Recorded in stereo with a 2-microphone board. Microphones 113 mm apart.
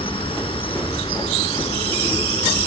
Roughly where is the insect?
Left.